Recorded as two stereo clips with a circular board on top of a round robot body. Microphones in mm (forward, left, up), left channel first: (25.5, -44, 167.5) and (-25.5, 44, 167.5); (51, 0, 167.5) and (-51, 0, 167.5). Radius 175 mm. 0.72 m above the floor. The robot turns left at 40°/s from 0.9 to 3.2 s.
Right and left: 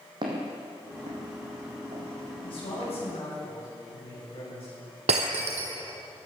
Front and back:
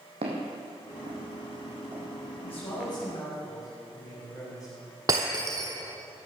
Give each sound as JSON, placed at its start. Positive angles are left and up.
{"t": 0.2, "sound": "footsteps", "azimuth_deg": 165, "distance_m": 2.5}
{"t": 2.4, "sound": "a man speaking", "azimuth_deg": -25, "distance_m": 5.5}
{"t": 5.1, "sound": "breaking glass", "azimuth_deg": 125, "distance_m": 1.2}